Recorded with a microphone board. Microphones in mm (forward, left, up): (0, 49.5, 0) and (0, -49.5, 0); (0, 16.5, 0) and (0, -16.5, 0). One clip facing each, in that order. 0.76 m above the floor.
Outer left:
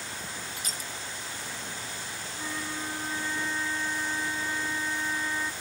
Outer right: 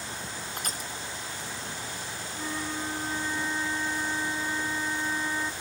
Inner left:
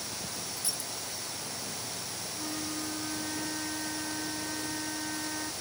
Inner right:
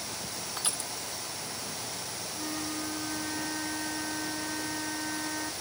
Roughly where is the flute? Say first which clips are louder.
Outer right 2 dB, inner right 1 dB; centre.